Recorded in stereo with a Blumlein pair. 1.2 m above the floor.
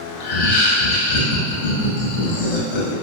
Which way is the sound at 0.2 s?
45° left.